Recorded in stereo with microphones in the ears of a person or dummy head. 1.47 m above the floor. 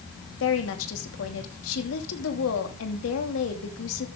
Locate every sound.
0.4 s a woman speaking: 85° left, 2.5 m